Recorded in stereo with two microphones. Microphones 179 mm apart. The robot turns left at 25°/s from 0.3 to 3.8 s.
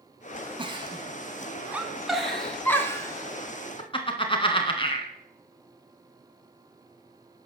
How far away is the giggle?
About 2.5 m.